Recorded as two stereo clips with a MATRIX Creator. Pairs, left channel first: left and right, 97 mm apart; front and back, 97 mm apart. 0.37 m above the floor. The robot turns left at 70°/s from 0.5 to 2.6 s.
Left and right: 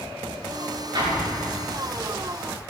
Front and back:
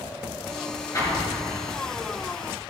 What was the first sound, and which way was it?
An explosion, 55° right.